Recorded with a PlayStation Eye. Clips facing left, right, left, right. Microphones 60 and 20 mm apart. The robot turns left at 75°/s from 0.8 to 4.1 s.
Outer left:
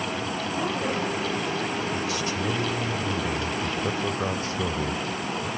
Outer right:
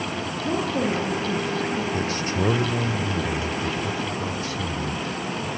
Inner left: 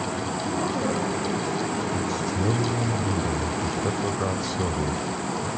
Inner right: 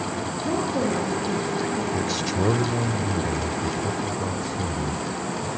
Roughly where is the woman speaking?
Ahead right.